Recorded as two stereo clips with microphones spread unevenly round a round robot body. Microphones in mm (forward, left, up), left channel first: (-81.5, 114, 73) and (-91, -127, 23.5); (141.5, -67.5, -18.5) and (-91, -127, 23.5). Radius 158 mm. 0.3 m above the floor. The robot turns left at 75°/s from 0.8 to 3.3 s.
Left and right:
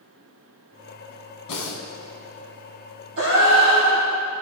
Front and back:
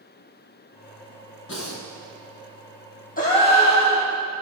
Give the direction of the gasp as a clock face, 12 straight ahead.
1 o'clock.